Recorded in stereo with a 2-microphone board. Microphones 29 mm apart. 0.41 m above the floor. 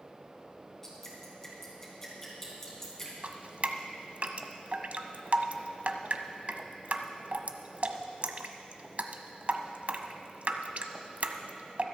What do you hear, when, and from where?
0.8 s dripping: 15° left (ahead or behind), 3 m
3.2 s dripping: 50° right (ahead or behind), 0.7 m